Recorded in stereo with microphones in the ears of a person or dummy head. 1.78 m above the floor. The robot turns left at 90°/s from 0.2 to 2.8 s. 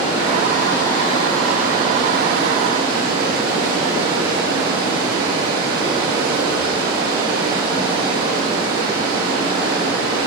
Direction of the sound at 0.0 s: 115° left.